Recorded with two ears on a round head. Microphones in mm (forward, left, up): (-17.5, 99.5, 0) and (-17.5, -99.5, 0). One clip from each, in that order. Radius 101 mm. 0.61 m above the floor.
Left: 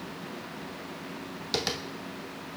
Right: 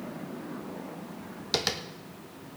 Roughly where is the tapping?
Centre.